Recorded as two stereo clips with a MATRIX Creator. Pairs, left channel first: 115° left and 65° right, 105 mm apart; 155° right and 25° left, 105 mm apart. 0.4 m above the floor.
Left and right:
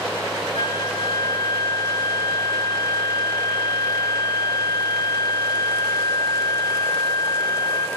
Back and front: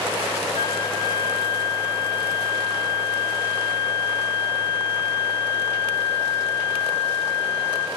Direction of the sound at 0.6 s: 160° left.